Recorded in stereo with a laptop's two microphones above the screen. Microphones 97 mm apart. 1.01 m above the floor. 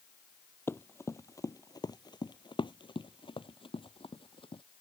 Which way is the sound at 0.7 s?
25° left (ahead or behind).